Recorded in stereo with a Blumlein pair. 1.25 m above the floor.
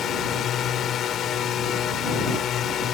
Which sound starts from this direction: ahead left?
A drone, at 0.0 s.